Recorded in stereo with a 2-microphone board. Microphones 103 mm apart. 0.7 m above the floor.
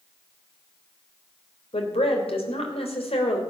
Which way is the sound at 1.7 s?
75° left (ahead or behind).